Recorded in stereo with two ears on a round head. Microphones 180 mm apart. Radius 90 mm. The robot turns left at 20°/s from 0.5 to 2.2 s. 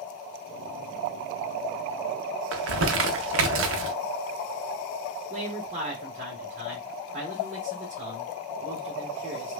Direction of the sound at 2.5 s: 70° right (ahead or behind).